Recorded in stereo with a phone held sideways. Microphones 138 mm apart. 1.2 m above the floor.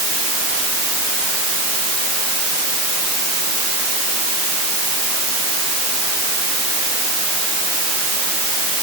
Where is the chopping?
I don't hear chopping.